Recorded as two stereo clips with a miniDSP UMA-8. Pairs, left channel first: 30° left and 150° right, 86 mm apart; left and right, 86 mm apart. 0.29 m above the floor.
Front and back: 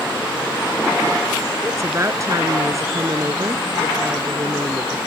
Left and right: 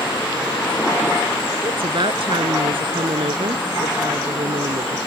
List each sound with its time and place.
1.6 s a woman speaking: 95° right